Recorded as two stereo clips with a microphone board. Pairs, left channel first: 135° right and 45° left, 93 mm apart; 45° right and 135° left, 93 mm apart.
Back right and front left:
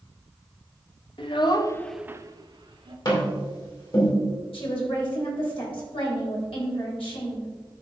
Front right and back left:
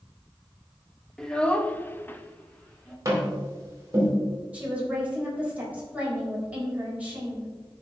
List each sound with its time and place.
1.2 s a child speaking: 125° right, 1.3 m; by 3.0 s 35° left, 1.6 m
3.0 s tapping: 170° right, 4 m
4.5 s a woman speaking: 150° right, 4 m